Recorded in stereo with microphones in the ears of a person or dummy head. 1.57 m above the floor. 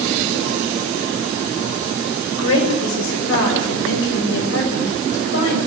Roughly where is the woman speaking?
Left.